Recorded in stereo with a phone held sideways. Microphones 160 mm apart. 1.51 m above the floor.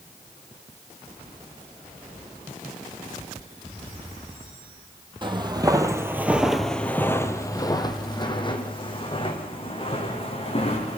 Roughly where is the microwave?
I don't hear a microwave.